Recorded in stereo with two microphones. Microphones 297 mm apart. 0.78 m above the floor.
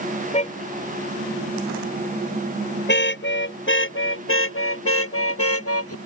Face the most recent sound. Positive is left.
turn(degrees=50)  # may be behind; listen again after turning